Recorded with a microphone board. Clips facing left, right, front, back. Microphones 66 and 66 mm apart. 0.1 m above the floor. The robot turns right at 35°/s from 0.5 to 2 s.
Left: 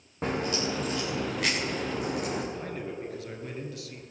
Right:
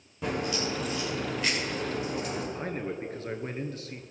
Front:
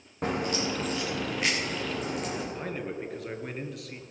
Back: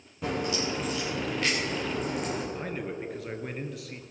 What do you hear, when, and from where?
0.2 s a crack: 40° left, 4 m; by 2.4 s 95° left, 4 m
2.5 s a man speaking: 90° right, 1.5 m